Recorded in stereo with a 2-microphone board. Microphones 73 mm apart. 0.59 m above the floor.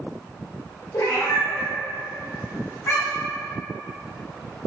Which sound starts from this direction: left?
A cat meowing, at 0.9 s.